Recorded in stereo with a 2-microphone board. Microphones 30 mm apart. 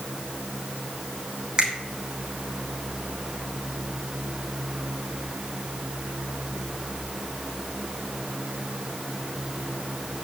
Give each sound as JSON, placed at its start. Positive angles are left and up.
{"t": 1.6, "sound": "a finger snap", "side_deg": -30, "distance_m": 2.0}